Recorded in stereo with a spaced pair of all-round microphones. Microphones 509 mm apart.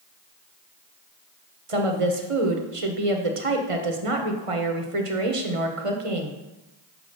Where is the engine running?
I don't hear an engine running.